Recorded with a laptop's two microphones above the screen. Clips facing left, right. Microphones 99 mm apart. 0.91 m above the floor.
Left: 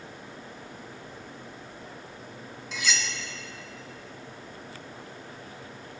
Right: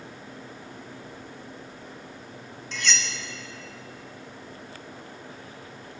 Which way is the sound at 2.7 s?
5° left (ahead or behind).